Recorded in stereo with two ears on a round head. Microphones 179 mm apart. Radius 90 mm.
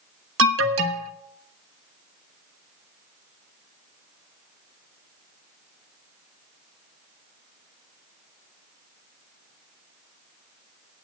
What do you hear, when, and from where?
0.4 s an alarm: 70° right (ahead or behind), 1.3 m